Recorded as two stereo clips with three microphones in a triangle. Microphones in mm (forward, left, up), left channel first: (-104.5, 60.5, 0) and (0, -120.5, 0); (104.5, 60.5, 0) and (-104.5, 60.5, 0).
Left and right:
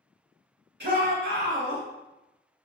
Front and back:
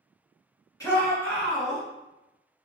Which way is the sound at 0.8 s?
70° right.